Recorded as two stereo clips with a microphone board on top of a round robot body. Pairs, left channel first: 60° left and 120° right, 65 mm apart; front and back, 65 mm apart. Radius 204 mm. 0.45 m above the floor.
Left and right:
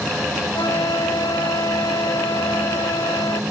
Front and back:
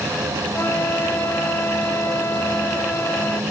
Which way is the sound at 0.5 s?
50° left.